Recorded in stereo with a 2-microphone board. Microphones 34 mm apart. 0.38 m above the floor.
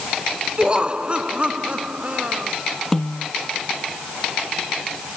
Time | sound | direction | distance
0.6 | laughter | 30° right (ahead or behind) | ?
2.9 | a snare drum | 10° left (ahead or behind) | ?